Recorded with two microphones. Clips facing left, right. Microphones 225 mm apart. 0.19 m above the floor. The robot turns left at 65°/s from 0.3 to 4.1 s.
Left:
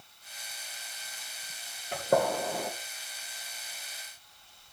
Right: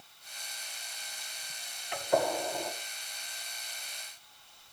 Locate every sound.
1.9 s a gunshot: 45° left (ahead or behind), 3.5 m; by 2.7 s 70° left (ahead or behind), 3.5 m